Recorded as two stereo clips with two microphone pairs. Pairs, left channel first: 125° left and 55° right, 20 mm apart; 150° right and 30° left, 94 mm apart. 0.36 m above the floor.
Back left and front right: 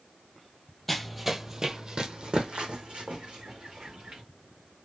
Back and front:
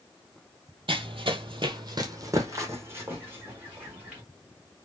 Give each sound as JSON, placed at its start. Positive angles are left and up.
{"t": 0.9, "sound": "running footsteps", "azimuth_deg": 45, "distance_m": 0.6}